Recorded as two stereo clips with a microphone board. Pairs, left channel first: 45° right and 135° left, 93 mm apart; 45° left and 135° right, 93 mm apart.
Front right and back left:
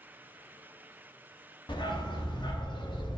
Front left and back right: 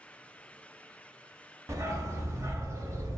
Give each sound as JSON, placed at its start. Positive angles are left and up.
{"t": 1.7, "sound": "a dog barking", "azimuth_deg": -80, "distance_m": 0.6}